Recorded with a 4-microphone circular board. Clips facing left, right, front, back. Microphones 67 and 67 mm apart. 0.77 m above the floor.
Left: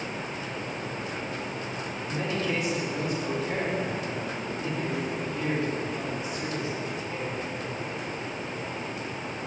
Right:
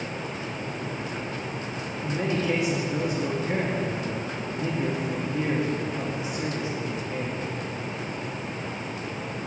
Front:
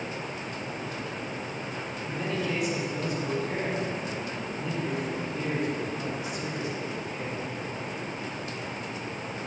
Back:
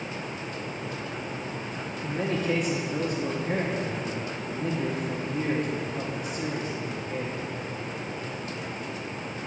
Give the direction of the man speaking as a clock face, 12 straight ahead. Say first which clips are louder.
Right 4 dB, back 4 dB; 5 o'clock.